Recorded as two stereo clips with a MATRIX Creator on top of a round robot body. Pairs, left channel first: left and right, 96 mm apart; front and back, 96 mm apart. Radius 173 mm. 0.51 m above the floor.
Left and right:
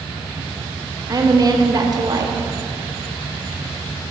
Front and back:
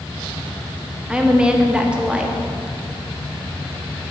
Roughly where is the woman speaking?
Right.